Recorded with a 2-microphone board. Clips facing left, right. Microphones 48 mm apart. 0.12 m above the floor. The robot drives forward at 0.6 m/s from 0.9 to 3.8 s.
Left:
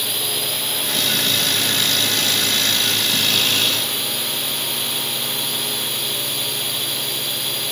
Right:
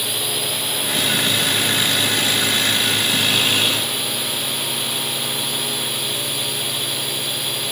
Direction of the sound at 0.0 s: 5° right (ahead or behind).